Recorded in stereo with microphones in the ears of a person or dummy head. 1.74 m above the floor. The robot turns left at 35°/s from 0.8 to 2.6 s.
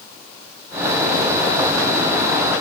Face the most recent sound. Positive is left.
No sound to turn to.